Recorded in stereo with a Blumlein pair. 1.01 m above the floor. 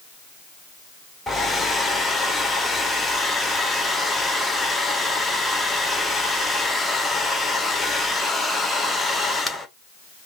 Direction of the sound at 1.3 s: 5° left.